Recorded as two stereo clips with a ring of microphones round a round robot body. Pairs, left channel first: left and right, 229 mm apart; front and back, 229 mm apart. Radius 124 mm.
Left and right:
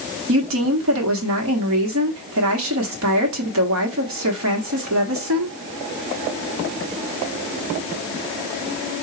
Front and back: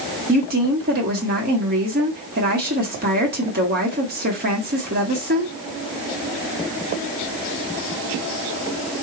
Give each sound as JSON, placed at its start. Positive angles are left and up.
{"t": 0.3, "sound": "a woman speaking", "azimuth_deg": -125, "distance_m": 1.1}